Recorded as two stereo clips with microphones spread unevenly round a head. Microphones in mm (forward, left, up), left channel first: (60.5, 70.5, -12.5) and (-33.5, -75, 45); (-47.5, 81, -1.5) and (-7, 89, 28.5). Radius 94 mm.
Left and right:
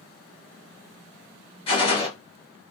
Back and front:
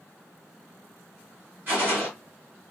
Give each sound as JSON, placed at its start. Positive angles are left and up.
{"t": 1.7, "sound": "a gunshot", "azimuth_deg": -10, "distance_m": 1.3}